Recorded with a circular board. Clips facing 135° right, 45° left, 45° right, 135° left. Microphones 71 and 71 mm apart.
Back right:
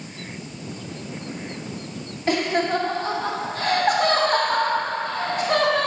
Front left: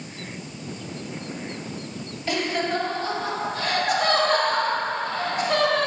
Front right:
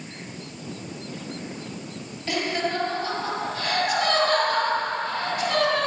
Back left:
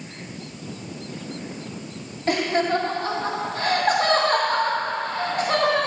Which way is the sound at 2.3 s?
Straight behind.